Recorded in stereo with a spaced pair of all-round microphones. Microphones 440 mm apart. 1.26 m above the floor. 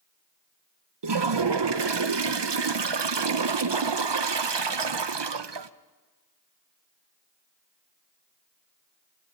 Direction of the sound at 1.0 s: 70° right (ahead or behind).